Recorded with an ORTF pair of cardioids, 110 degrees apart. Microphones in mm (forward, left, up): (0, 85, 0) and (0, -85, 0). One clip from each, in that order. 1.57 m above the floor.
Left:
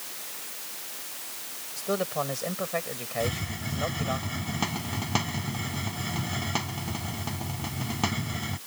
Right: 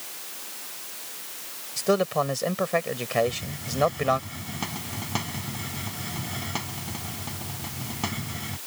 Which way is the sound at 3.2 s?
45° left.